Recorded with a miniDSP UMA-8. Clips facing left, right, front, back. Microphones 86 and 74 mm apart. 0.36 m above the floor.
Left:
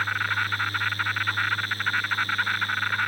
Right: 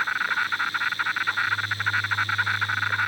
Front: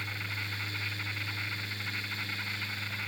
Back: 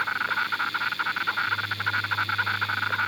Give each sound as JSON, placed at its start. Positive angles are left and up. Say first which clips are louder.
{"t": 0.0, "sound": "an insect", "louder": "right 1 dB, back 13 dB", "azimuth_deg": -170}